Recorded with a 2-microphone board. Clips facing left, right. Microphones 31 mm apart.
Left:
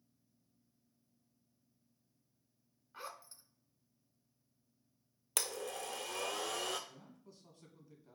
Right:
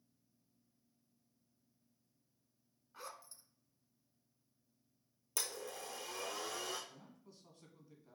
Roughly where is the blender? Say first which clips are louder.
Left 4 dB; left.